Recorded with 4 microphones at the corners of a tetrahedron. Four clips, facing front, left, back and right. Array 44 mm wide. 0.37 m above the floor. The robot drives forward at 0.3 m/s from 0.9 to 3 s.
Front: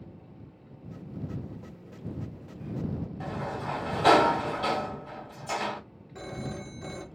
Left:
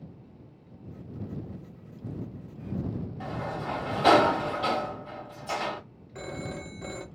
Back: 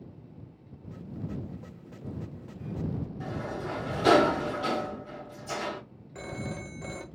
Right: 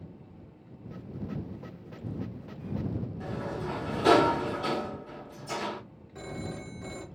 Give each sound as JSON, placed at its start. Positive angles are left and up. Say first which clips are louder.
{"t": 3.2, "sound": "a sliding door", "louder": "left 3 dB, front 2 dB", "azimuth_deg": 75, "distance_m": 1.5}
{"t": 6.2, "sound": "a phone ringing", "louder": "left 2 dB, even", "azimuth_deg": 115, "distance_m": 0.7}